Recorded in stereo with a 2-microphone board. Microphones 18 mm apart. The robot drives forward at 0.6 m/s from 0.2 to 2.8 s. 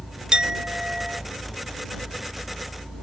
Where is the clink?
50° right (ahead or behind); by 1.2 s 30° right (ahead or behind).